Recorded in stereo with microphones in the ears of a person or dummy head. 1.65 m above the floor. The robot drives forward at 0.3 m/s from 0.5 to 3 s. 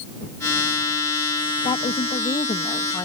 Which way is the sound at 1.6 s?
25° left (ahead or behind).